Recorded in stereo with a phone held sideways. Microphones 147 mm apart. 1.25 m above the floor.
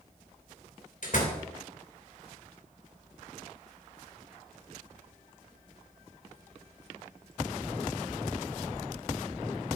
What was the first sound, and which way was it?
A door slam, 60° left (ahead or behind).